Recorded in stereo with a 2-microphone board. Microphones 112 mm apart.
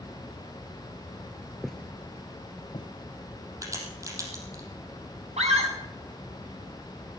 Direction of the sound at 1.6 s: Centre (ahead or behind).